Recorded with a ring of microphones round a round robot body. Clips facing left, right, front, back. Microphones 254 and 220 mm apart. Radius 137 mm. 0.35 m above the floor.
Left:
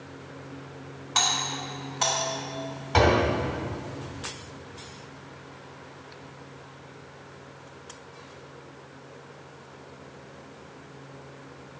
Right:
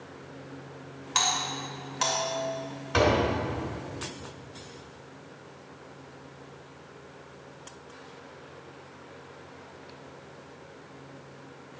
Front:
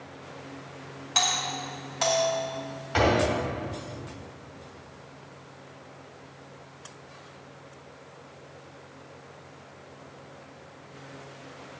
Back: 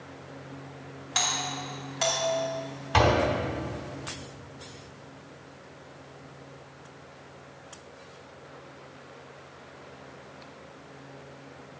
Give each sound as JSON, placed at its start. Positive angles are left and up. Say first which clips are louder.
{"t": 1.1, "sound": "a doorbell", "louder": "left 1 dB, front 2 dB", "azimuth_deg": -90, "distance_m": 2.5}
{"t": 2.9, "sound": "a door slam", "louder": "left 2 dB, even", "azimuth_deg": -165, "distance_m": 2.5}